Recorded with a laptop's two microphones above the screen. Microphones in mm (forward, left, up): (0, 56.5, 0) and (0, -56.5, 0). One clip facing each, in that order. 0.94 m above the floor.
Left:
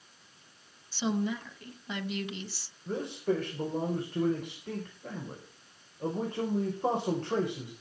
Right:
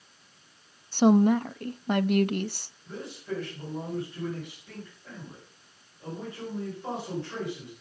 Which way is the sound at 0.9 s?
55° right (ahead or behind).